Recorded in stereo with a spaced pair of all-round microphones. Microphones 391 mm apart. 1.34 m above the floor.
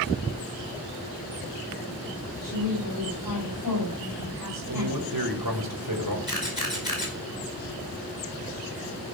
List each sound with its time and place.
2.4 s a woman speaking: 65° left (ahead or behind), 6.5 m
4.7 s a man speaking: 70° right (ahead or behind), 3 m
6.3 s a camera shutter: 60° left (ahead or behind), 5 m